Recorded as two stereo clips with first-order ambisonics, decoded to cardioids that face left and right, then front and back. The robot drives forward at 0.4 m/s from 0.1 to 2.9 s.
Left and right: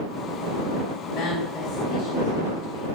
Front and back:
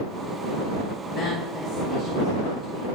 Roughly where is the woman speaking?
Ahead left.